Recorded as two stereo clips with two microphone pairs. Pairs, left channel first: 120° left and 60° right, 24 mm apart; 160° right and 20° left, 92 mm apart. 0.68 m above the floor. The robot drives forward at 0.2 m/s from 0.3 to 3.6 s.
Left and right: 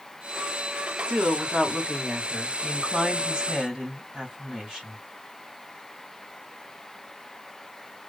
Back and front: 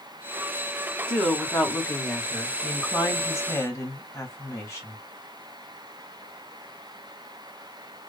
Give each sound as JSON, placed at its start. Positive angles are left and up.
{"t": 1.1, "sound": "a woman speaking", "azimuth_deg": -80, "distance_m": 1.4}